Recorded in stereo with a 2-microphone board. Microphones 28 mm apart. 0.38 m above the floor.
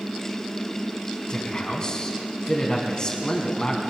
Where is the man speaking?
25° left (ahead or behind), 3 m.